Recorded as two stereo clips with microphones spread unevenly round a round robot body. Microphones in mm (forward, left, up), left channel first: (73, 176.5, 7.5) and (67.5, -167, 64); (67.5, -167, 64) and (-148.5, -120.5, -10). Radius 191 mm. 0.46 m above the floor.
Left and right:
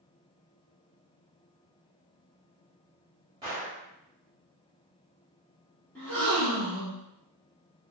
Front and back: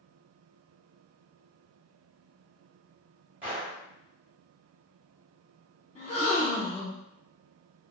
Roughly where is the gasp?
Ahead left.